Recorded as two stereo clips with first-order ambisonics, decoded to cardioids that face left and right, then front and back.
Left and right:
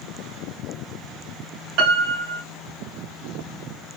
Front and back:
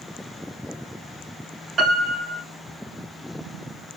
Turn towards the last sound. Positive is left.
turn(degrees=-115)